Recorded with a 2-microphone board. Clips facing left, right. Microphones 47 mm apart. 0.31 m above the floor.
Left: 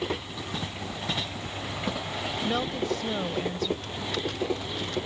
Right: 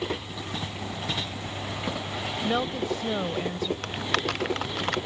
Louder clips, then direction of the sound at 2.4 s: Right 2 dB; 15° right (ahead or behind).